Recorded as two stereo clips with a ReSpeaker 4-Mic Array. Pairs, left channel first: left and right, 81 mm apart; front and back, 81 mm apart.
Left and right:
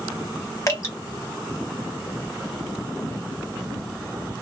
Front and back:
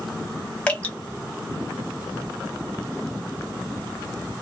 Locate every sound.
0.7 s dripping: 65° left, 1.0 m